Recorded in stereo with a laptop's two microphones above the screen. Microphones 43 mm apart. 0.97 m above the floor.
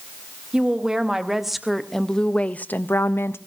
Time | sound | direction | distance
0.5 | a woman speaking | 20° right (ahead or behind) | 1.3 m